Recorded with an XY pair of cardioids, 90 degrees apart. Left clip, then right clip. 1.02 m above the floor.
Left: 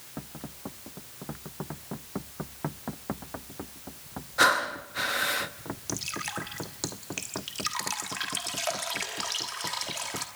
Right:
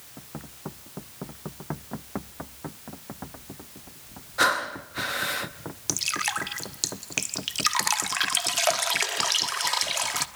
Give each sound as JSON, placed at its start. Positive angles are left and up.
{"t": 4.4, "sound": "breathing", "azimuth_deg": 5, "distance_m": 0.8}
{"t": 5.9, "sound": "dripping", "azimuth_deg": -60, "distance_m": 1.1}